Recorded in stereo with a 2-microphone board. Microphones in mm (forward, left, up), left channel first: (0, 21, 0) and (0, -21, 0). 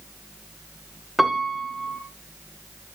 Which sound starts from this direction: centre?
A piano, at 1.2 s.